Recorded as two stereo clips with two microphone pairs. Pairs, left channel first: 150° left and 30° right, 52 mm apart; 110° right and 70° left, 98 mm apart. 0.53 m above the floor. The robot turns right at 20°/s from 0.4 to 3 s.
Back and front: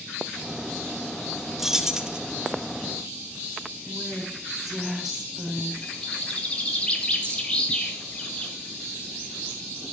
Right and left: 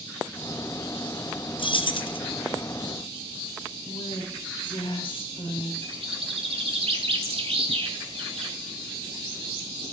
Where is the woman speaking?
115° right, 2 m.